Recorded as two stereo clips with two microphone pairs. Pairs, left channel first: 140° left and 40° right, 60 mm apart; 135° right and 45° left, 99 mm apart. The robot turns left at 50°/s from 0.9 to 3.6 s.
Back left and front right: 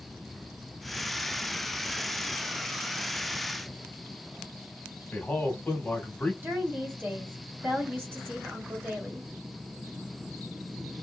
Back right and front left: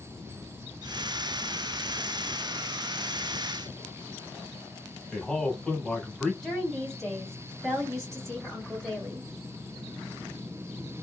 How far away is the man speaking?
About 1.0 m.